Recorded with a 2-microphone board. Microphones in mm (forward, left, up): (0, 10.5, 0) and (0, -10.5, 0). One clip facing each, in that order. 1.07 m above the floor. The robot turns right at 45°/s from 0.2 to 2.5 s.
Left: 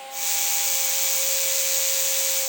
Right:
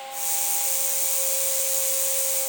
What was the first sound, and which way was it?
Only background noise.